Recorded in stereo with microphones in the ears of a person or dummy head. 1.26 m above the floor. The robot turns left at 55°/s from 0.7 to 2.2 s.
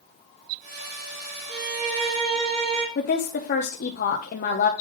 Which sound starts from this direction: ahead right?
A violin, at 1.5 s.